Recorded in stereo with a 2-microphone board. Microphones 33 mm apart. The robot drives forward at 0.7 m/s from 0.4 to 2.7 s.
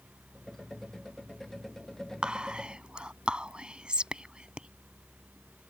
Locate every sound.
2.2 s whispering: 30° right (ahead or behind); by 4.7 s 35° right (ahead or behind)